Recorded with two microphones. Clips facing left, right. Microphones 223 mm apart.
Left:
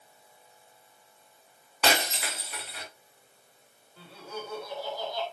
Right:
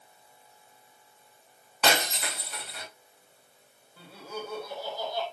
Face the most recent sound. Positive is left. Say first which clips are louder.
# right 1 dB
turn(degrees=-15)  # may be behind; listen again after turning